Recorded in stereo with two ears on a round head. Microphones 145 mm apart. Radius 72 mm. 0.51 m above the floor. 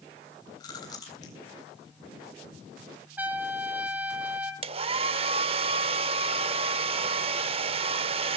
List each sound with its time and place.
0.6 s chewing: 25° left (ahead or behind), 3.5 m
3.2 s a trumpet: 10° right (ahead or behind), 1.7 m
4.6 s a hair dryer: 40° right (ahead or behind), 0.6 m